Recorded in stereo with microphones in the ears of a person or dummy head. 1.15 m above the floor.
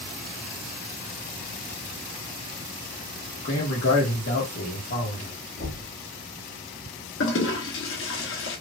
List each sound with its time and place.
3.4 s a man speaking: 65° left (ahead or behind), 1.5 m
5.6 s knocking: 65° left (ahead or behind), 2.5 m
7.2 s a toilet flushing: 60° left (ahead or behind), 1.2 m